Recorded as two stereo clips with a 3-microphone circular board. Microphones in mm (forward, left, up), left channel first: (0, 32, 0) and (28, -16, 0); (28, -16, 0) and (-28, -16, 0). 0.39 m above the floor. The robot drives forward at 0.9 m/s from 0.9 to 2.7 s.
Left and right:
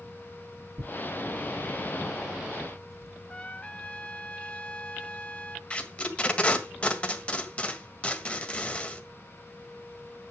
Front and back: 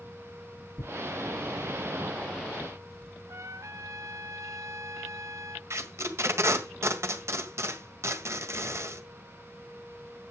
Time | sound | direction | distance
0.8 | tearing paper | 35° right | 2.5 m
3.3 | a trumpet | 170° right | 1.0 m
5.7 | tape being pulled | 175° right | 1.7 m